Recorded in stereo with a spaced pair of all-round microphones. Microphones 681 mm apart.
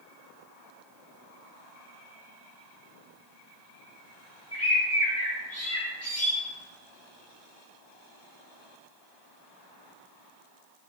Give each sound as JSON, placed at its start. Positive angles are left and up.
{"t": 4.5, "sound": "a bird", "side_deg": 20, "distance_m": 1.6}